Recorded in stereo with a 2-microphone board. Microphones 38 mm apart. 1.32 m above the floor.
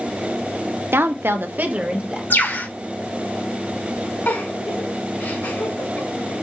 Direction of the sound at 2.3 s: 75° left (ahead or behind).